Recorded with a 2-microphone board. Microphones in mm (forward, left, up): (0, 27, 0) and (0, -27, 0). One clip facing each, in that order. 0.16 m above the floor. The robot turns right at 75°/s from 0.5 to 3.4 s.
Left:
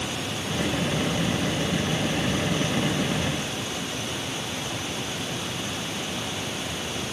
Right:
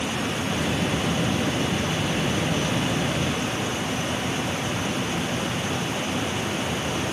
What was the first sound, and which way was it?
Only background noise.